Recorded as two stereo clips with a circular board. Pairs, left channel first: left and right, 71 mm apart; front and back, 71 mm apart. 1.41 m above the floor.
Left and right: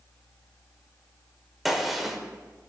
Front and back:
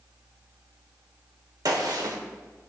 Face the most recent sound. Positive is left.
turn(degrees=180)